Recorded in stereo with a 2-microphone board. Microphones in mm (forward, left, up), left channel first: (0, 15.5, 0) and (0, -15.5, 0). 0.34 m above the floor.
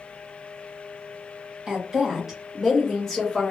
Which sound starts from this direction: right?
A woman speaking, at 1.7 s.